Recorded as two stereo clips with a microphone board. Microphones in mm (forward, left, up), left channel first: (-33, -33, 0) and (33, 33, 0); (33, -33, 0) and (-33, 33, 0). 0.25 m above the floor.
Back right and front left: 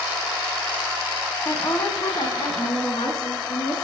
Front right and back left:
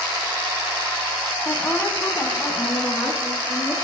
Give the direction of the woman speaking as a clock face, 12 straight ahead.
3 o'clock.